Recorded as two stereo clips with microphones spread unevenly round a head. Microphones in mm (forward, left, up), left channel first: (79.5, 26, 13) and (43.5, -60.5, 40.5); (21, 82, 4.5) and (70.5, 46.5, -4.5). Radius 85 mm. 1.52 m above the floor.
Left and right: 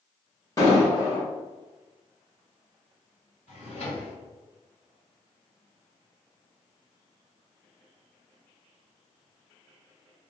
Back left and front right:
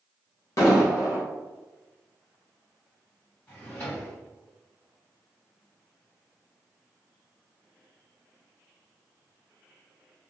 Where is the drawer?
90° left, 1.7 m.